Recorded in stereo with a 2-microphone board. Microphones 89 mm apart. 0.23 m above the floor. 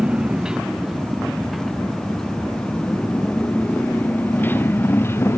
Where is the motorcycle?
10° right (ahead or behind); by 5.4 s 30° left (ahead or behind).